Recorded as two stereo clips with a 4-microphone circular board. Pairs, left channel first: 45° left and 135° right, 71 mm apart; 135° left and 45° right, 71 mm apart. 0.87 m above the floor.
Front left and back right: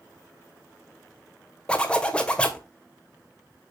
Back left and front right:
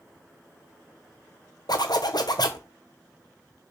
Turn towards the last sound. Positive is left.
turn(degrees=120)